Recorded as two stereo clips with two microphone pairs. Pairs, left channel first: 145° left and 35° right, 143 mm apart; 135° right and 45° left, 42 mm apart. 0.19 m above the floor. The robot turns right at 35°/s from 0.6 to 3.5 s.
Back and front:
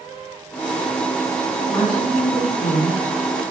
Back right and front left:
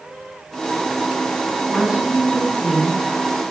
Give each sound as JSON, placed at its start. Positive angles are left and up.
{"t": 1.7, "sound": "a woman speaking", "azimuth_deg": 100, "distance_m": 8.0}